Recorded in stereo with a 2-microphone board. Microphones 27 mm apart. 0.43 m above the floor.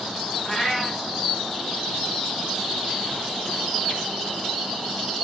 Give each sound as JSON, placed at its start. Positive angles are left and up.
{"t": 0.5, "sound": "a cat meowing", "side_deg": 10, "distance_m": 2.5}